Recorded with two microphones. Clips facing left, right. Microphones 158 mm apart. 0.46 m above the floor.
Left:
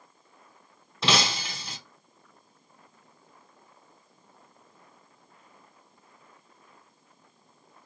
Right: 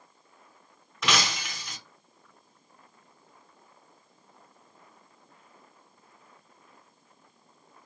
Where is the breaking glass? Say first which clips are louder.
Left 2 dB; 30° left (ahead or behind), 0.5 m.